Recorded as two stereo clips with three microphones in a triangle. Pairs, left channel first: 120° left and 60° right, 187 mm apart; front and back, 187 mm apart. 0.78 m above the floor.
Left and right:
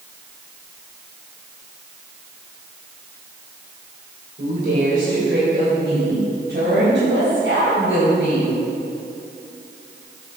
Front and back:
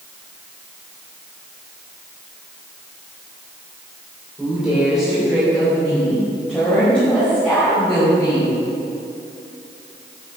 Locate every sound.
4.4 s a woman speaking: 95° right, 3.5 m; by 8.6 s 80° right, 5.5 m